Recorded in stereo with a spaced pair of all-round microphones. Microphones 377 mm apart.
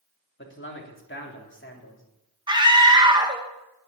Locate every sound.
0.4 s a man speaking: 30° left (ahead or behind), 3.5 m
2.5 s a scream: 10° right (ahead or behind), 2.5 m